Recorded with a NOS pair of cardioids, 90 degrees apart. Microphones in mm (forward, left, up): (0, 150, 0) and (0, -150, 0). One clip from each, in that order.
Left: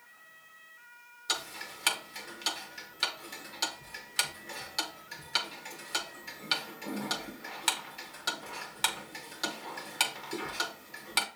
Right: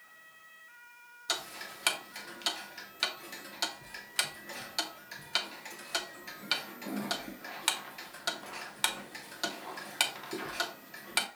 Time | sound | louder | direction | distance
1.3 | ticking | left 1 dB | straight ahead | 0.7 m